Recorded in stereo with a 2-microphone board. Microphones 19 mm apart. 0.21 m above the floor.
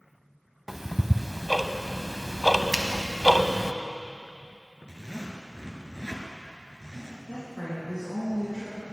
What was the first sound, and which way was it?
Ticking, 20° right (ahead or behind).